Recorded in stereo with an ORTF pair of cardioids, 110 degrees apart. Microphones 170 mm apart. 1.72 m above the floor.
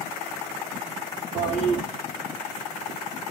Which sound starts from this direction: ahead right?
A toilet flushing, at 1.4 s.